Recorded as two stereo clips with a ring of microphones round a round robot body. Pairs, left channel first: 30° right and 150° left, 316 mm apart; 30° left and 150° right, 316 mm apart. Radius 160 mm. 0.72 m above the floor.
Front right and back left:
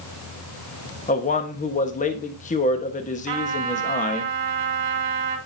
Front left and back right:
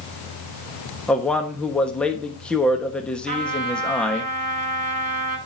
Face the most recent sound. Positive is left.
turn(degrees=145)